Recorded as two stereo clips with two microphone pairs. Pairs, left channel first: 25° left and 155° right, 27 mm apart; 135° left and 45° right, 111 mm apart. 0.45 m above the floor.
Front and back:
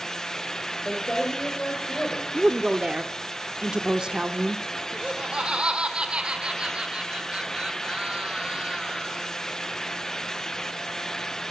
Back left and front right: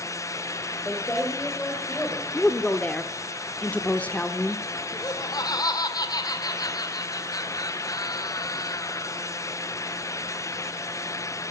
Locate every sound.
0.8 s a woman speaking: 70° left, 2.0 m
2.3 s a woman speaking: 165° right, 0.8 m
4.9 s laughter: 170° left, 1.6 m